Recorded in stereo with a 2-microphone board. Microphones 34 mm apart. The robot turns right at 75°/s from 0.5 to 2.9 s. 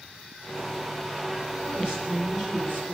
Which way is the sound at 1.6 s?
50° right.